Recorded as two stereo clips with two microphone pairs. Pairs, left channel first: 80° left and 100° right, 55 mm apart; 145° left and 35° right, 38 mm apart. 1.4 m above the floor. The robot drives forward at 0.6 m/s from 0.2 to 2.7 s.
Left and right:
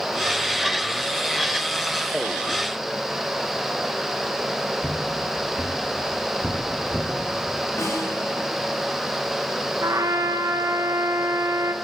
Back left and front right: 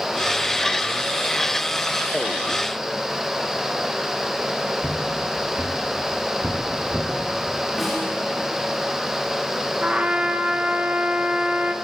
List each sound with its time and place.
4.8 s footsteps: straight ahead, 5 m; by 7.1 s 15° left, 5.5 m
7.8 s a snare drum: 55° left, 5 m
9.8 s a trumpet: 95° right, 1.2 m